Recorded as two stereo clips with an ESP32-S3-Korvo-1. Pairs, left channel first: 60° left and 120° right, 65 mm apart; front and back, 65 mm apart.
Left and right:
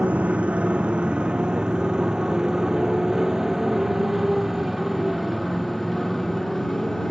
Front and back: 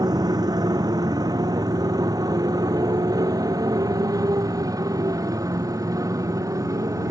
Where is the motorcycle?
170° left; by 7.1 s 145° left.